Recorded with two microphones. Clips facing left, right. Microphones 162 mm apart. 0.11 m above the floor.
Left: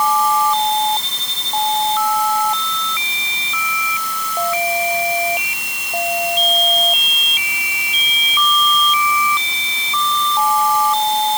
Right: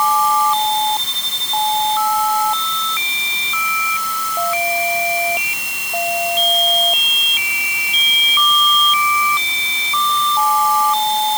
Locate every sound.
Only background noise.